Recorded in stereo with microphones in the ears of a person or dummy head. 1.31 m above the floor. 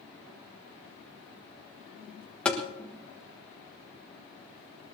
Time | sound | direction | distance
2.5 | tapping | 10° left (ahead or behind) | 1.4 m